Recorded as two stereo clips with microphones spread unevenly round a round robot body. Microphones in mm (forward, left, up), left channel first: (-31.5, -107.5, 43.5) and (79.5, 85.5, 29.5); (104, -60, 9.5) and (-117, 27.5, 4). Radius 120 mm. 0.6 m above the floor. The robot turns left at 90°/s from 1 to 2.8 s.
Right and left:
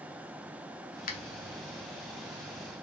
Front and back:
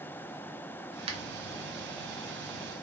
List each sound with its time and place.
1.1 s a finger snap: 150° right, 0.7 m; by 1.2 s 160° right, 0.7 m